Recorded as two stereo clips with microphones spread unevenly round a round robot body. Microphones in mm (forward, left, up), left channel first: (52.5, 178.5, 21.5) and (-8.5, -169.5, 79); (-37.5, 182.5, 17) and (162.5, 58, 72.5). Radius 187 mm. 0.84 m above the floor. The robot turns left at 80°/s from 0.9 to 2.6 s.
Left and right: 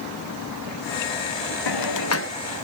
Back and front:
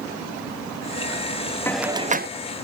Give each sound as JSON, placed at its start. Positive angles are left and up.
{"t": 1.7, "sound": "a hiss", "azimuth_deg": 70, "distance_m": 0.9}